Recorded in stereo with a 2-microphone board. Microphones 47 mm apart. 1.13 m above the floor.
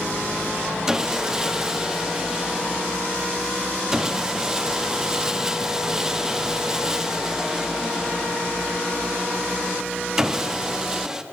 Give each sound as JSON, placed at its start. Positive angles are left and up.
{"t": 0.9, "sound": "sawing", "side_deg": -15, "distance_m": 0.5}